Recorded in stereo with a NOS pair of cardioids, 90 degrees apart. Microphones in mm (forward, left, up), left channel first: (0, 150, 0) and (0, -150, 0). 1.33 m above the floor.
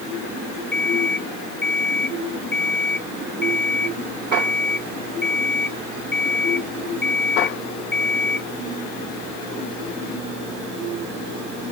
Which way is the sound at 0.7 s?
35° left.